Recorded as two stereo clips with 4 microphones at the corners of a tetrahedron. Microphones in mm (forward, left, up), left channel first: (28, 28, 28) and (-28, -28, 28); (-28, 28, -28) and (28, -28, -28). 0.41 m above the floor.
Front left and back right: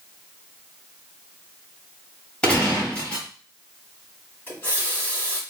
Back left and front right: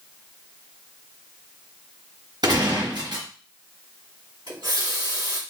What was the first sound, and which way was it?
A gunshot, 30° right.